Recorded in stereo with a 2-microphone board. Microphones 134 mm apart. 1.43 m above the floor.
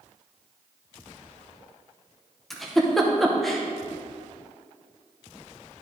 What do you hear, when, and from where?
2.5 s a giggle: centre (ahead or behind), 0.8 m